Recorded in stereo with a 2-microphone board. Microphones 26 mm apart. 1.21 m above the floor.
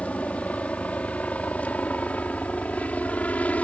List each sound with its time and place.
0.0 s a helicopter: 60° left (ahead or behind); by 3.6 s 65° left (ahead or behind)